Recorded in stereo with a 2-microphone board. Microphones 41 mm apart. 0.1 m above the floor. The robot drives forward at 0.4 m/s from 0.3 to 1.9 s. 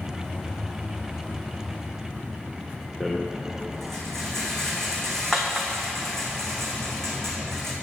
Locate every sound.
3.0 s a rattle: 10° left (ahead or behind), 1.5 m